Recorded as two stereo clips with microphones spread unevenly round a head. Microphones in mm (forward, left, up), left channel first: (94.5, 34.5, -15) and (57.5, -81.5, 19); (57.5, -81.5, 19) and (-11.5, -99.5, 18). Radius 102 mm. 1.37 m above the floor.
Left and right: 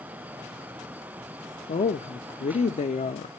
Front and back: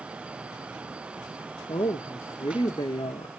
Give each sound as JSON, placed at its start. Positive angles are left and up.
{"t": 1.7, "sound": "a woman speaking", "azimuth_deg": 60, "distance_m": 0.6}